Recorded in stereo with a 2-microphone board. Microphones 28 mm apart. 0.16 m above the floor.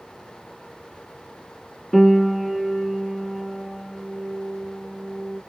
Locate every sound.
1.9 s a piano: 15° left (ahead or behind), 1.2 m